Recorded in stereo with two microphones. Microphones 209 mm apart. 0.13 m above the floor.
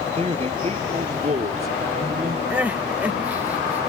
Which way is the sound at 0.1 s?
30° right (ahead or behind).